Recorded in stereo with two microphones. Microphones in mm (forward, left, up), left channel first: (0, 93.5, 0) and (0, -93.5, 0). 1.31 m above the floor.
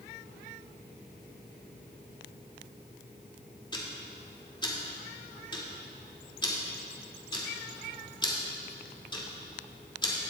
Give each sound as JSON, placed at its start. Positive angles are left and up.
{"t": 3.7, "sound": "ticking", "side_deg": 25, "distance_m": 2.5}